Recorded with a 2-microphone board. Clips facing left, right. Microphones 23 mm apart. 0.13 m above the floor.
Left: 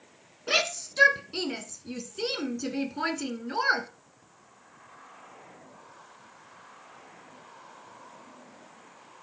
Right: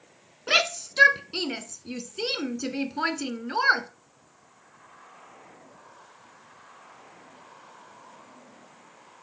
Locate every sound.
0.5 s a shout: 20° right (ahead or behind), 1.1 m